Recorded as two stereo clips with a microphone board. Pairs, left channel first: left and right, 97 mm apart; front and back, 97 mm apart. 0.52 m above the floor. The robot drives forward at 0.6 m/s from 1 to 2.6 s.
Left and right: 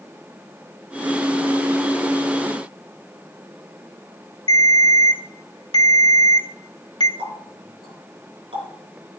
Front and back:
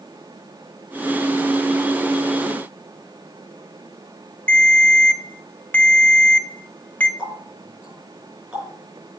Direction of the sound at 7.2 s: 100° right.